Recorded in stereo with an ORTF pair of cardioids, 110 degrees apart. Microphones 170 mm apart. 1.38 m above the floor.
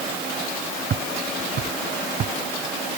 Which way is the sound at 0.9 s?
50° right.